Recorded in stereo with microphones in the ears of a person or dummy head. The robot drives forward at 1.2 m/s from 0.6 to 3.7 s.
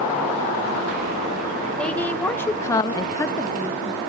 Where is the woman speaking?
5° left (ahead or behind), 1.5 m.